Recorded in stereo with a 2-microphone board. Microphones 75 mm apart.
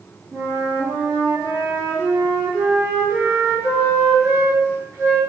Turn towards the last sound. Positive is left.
turn(degrees=-35)  # may be behind; listen again after turning